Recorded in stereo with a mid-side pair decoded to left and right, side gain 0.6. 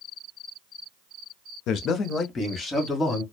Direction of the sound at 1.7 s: 65° left.